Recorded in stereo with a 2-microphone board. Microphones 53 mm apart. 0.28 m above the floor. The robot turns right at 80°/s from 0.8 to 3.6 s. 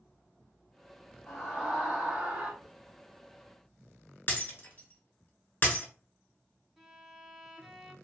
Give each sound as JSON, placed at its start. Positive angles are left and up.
{"t": 1.3, "sound": "a scream", "side_deg": -5, "distance_m": 1.7}
{"t": 2.6, "sound": "a hiss", "side_deg": 20, "distance_m": 1.7}
{"t": 4.3, "sound": "breaking glass", "side_deg": 40, "distance_m": 1.1}
{"t": 6.8, "sound": "a violin", "side_deg": -5, "distance_m": 0.6}